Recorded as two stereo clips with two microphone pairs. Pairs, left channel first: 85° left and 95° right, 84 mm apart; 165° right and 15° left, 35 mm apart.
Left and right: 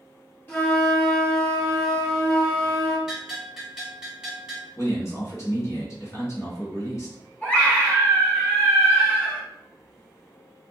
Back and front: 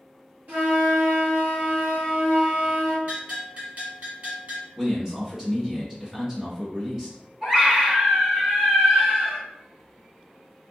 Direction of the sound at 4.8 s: 80° left.